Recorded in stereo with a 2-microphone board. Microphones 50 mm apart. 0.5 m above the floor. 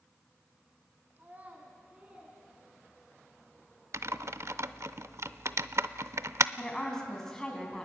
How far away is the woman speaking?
About 4 m.